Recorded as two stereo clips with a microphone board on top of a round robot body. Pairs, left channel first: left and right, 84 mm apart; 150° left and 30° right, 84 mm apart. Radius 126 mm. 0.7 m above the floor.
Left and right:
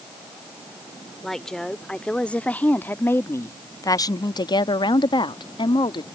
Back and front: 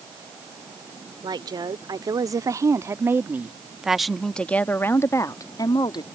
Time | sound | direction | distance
1.2 | a woman speaking | 5° left | ?